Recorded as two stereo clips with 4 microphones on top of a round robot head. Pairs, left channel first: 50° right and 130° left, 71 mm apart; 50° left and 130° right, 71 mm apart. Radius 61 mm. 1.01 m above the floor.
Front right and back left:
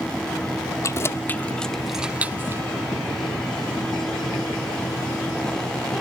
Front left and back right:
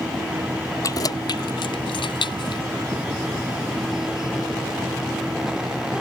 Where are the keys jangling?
5° left; by 2.6 s 75° left.